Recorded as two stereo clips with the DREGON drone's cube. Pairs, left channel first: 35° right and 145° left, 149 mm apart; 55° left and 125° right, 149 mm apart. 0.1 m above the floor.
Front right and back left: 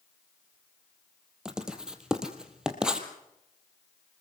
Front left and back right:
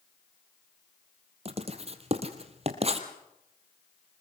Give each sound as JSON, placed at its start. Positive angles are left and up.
{"t": 1.4, "sound": "writing", "azimuth_deg": -130, "distance_m": 2.0}